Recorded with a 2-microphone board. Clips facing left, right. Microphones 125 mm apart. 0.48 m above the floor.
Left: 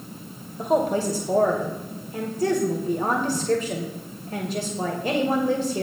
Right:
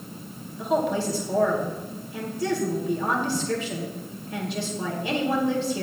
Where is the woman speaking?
45° left (ahead or behind), 2.5 m.